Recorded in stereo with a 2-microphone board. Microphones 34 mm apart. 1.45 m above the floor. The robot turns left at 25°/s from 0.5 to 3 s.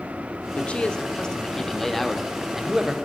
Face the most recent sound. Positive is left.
turn(degrees=-20)